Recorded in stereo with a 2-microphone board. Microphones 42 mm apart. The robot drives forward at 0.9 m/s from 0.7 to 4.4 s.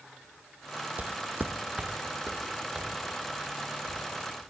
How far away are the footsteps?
About 0.6 m.